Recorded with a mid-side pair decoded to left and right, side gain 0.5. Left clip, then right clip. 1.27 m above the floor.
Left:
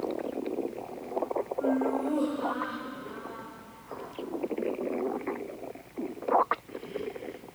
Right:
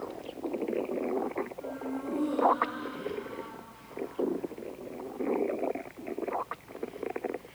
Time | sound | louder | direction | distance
1.6 | laughter | left 9 dB | 60° left | 9.5 m